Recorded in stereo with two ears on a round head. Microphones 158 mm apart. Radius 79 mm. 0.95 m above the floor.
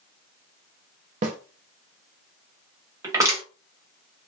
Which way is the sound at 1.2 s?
40° right (ahead or behind).